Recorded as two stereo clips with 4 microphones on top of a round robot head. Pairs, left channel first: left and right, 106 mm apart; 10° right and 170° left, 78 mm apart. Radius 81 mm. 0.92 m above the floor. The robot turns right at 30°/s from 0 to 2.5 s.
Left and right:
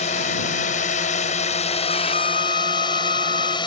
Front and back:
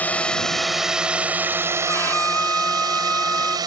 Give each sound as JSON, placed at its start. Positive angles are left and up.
{"t": 0.0, "sound": "a drone", "azimuth_deg": 60}
{"t": 1.9, "sound": "a violin", "azimuth_deg": 50}